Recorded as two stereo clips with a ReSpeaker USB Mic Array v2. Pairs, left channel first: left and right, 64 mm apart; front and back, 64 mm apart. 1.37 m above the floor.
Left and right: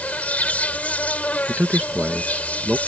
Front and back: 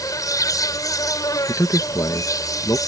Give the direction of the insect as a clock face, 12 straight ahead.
11 o'clock.